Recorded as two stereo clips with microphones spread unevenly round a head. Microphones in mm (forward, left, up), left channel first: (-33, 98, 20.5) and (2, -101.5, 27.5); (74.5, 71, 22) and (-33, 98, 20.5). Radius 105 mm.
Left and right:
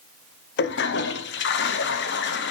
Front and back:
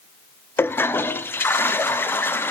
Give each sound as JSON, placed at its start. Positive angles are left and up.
{"t": 0.6, "sound": "a toilet flushing", "azimuth_deg": 60, "distance_m": 0.6}